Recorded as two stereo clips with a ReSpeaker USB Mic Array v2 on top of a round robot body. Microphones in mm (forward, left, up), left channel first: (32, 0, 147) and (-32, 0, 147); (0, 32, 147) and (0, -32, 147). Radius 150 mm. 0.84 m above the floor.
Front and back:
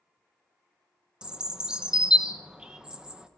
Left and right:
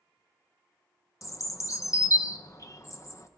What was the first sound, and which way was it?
A bird, 105° left.